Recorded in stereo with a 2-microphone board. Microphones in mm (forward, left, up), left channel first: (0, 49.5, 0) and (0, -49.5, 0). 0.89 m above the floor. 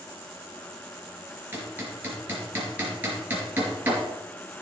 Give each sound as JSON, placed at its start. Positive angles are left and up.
{"t": 1.5, "sound": "hammering", "side_deg": -20, "distance_m": 4.0}